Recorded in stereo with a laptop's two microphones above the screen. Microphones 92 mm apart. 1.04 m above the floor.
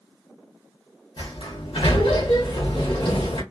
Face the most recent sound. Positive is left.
turn(degrees=85)